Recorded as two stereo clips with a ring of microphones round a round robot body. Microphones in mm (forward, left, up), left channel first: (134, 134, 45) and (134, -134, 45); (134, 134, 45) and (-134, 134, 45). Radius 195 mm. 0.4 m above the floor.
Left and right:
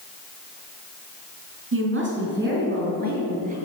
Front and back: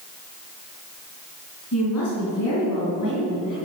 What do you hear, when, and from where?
1.7 s a woman speaking: 50° right, 4 m; by 3.5 s 30° right, 6.5 m